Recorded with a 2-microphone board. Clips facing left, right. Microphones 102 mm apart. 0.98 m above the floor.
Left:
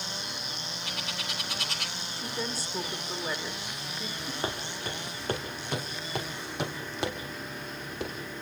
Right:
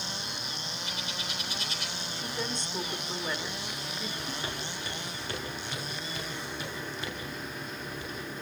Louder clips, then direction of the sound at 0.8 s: Left 2 dB; 75° left (ahead or behind).